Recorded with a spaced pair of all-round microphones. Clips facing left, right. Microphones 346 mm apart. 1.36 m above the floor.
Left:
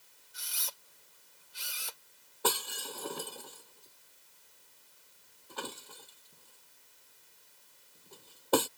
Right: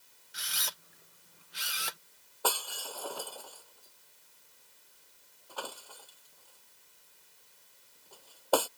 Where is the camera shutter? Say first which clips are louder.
Right 4 dB; 80° right.